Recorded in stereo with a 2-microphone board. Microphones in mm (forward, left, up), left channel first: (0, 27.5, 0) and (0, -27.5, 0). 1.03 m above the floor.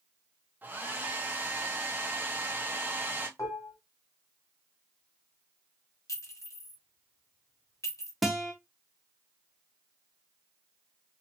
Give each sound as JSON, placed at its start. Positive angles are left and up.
{"t": 0.6, "sound": "a hair dryer", "side_deg": -30, "distance_m": 0.8}
{"t": 3.4, "sound": "dishes clattering", "side_deg": 85, "distance_m": 1.4}
{"t": 6.1, "sound": "a clink", "side_deg": 70, "distance_m": 1.4}
{"t": 8.2, "sound": "a guitar", "side_deg": 0, "distance_m": 0.7}